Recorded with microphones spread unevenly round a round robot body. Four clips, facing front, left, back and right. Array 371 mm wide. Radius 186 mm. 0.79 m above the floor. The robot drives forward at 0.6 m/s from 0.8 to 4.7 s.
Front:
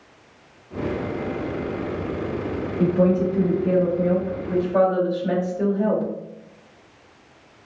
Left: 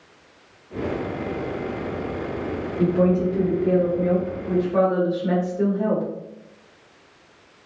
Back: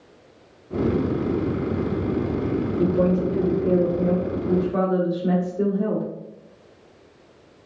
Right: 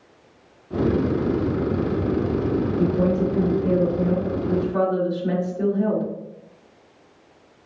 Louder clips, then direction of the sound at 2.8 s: Left 4 dB, front 3 dB; 160° left.